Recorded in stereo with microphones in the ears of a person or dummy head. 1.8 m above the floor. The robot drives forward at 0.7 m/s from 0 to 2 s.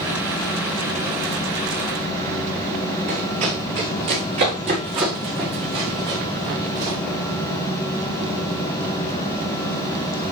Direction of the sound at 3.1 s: 45° right (ahead or behind).